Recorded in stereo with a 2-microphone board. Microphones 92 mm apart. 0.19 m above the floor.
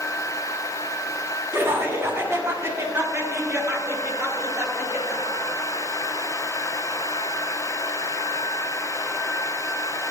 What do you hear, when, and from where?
1.5 s laughter: 30° right (ahead or behind), 1.8 m